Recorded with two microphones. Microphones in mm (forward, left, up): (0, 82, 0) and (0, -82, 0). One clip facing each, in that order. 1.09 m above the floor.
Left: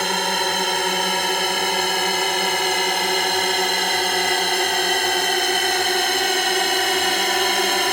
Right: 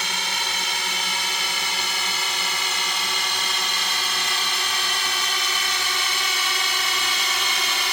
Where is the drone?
55° left (ahead or behind).